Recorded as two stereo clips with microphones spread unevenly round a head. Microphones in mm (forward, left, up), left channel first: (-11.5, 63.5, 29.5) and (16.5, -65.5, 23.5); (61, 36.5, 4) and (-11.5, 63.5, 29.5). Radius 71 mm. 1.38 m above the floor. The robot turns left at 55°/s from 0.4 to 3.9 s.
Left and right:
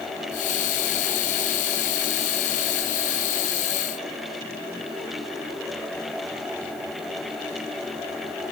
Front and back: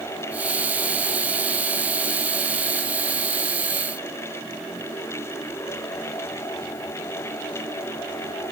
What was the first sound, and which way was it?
Only background noise.